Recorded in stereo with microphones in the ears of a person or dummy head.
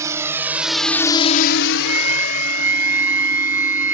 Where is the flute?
10° right (ahead or behind).